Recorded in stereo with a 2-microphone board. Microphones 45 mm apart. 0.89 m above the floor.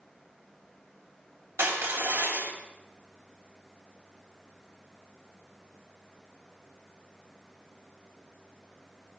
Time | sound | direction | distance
1.6 | crushing | 85° right | 3.5 m